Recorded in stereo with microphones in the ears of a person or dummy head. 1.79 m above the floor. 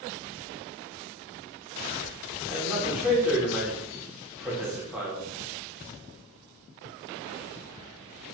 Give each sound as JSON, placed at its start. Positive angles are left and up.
{"t": 2.5, "sound": "a man speaking", "side_deg": -5, "distance_m": 3.0}